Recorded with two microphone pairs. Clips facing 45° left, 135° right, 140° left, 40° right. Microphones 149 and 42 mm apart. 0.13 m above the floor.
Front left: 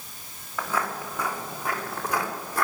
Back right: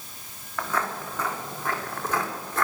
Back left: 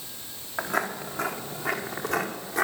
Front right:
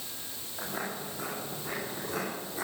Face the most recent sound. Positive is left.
turn(degrees=125)